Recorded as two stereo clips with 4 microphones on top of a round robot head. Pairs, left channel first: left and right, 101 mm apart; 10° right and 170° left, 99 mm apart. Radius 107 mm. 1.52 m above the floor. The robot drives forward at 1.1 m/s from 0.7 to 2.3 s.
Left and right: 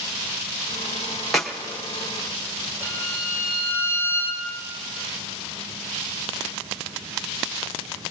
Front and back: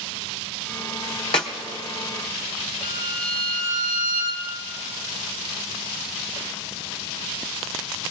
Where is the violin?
75° right, 2 m.